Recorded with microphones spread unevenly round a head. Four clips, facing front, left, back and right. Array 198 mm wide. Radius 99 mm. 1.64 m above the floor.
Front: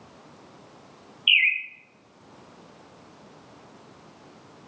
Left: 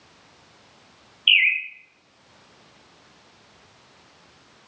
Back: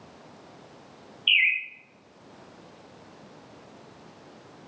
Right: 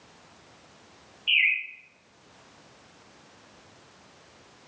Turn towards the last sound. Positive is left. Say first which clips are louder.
# left 4 dB, front 1 dB
turn(degrees=50)